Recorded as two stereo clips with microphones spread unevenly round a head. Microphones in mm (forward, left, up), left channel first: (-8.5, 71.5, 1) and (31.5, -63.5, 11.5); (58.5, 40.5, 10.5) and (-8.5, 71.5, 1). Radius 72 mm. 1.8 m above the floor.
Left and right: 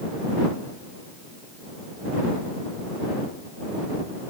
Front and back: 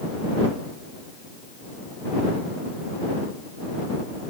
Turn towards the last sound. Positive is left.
No sound to turn to.